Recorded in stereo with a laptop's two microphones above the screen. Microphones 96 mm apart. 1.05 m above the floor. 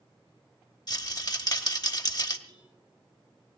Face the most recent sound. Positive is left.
turn(degrees=-50)  # may be behind; listen again after turning